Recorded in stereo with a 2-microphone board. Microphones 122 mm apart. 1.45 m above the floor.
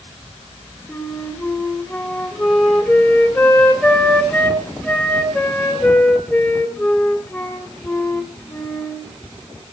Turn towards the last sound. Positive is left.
turn(degrees=10)  # may be behind; listen again after turning